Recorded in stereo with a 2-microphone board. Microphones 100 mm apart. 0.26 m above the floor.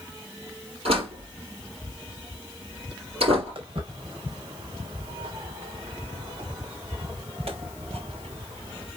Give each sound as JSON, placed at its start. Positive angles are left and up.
{"t": 0.8, "sound": "a door slam", "side_deg": -80, "distance_m": 5.0}
{"t": 3.5, "sound": "footsteps", "side_deg": -65, "distance_m": 5.0}